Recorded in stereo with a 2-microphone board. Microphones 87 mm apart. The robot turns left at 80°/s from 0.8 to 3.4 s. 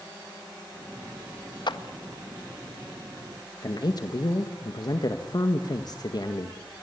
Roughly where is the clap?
Left.